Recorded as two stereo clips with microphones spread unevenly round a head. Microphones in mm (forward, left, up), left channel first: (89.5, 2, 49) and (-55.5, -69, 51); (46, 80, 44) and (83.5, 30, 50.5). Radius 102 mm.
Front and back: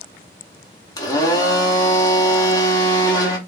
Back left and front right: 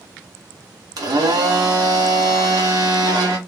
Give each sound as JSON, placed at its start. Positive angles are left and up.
{"t": 1.0, "sound": "a blender", "azimuth_deg": -40, "distance_m": 1.0}